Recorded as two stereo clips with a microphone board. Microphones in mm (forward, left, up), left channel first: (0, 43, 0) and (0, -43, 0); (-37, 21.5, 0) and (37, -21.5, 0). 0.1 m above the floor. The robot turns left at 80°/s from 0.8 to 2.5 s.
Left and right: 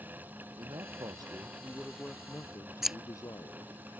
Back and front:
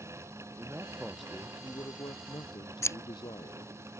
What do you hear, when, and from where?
0.6 s a man speaking: 90° right; by 3.8 s 135° left
2.8 s scissors: 175° right